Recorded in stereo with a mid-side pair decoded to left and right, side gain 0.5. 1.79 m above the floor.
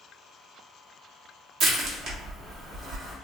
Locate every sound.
1.6 s crushing: 70° right, 1.1 m